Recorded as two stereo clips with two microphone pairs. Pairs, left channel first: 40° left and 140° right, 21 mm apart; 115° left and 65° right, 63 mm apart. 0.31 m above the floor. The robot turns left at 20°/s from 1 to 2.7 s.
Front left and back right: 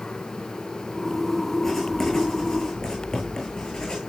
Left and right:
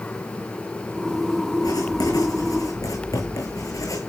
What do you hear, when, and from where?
1.6 s writing: 115° left, 9.5 m; by 4.0 s 95° left, 9.5 m